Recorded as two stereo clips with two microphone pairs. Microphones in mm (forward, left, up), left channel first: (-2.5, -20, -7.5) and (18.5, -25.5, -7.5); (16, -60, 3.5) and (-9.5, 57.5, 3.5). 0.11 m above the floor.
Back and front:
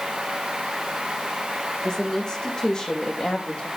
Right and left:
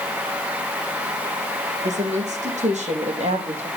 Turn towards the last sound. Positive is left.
turn(degrees=115)